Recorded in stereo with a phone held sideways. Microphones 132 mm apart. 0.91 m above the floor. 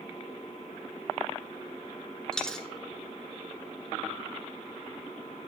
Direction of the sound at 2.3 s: 5° left (ahead or behind).